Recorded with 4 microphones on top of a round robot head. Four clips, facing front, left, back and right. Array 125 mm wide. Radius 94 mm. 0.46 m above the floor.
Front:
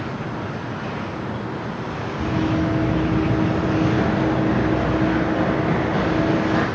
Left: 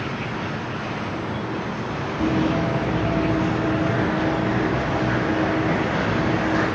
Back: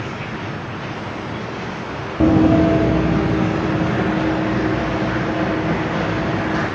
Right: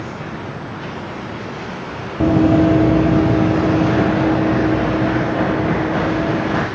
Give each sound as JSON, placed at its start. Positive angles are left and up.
{"t": 2.2, "sound": "running footsteps", "azimuth_deg": -145, "distance_m": 1.1}